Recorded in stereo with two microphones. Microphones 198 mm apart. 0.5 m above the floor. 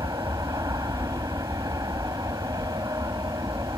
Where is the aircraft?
20° right (ahead or behind).